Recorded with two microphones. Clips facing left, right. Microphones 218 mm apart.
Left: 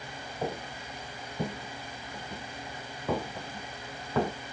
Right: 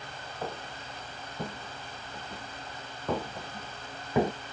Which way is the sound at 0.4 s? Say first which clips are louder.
Left 4 dB; 20° left (ahead or behind).